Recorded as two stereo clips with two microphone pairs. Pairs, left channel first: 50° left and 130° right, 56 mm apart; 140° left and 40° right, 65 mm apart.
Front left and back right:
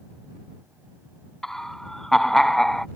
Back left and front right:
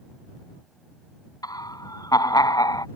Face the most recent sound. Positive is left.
turn(degrees=130)